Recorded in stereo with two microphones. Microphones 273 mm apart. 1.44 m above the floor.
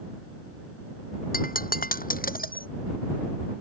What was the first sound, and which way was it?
Breaking glass, 30° left (ahead or behind).